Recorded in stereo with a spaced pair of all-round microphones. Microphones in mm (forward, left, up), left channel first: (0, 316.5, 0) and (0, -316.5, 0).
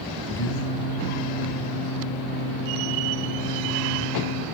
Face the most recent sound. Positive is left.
turn(degrees=40)  # may be behind; listen again after turning